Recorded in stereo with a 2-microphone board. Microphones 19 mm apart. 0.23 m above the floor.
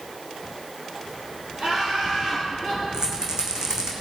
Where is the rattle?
40° right (ahead or behind), 2 m.